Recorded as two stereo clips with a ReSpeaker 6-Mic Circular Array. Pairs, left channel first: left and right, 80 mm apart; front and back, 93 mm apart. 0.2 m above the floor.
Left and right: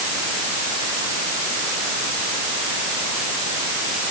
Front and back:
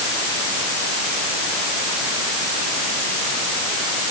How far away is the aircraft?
I don't hear an aircraft.